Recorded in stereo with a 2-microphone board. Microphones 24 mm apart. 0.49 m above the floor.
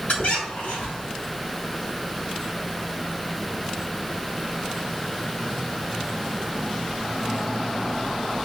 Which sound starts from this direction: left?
A squeak, at 0.1 s.